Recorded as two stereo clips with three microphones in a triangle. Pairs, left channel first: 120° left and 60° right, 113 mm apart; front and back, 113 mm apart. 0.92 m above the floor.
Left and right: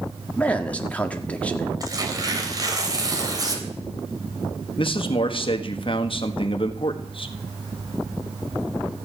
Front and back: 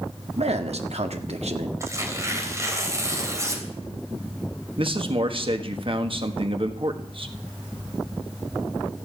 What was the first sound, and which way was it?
A man speaking, 160° right.